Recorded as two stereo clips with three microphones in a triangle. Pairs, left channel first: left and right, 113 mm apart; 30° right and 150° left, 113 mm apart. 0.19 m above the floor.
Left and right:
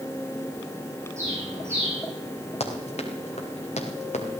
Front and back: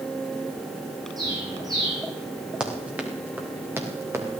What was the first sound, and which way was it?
A bird, 155° right.